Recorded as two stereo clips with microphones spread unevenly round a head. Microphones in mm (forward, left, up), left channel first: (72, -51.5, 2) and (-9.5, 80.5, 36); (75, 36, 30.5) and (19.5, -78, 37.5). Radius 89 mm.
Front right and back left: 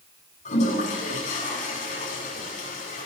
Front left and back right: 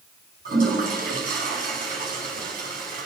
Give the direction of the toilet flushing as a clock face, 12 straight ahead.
4 o'clock.